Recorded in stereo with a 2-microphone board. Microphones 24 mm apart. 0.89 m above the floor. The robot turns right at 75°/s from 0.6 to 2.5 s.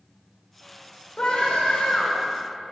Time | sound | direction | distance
1.2 | a scream | 45° left | 3.5 m